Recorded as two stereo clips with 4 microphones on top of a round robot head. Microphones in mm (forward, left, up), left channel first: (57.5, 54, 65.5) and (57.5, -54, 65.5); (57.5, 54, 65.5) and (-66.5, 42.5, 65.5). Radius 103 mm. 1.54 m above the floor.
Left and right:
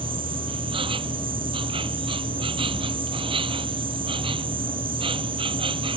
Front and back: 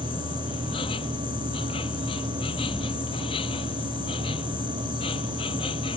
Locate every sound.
0.0 s an insect: 50° right